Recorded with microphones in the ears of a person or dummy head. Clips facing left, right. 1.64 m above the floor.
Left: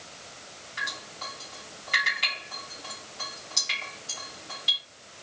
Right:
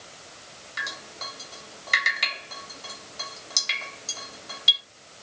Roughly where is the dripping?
Right.